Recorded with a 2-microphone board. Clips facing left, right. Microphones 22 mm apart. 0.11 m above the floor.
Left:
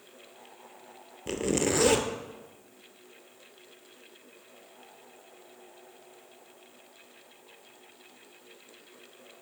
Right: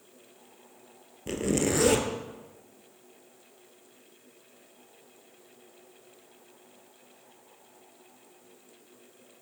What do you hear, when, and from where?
1.3 s a zipper: 10° left (ahead or behind), 1.0 m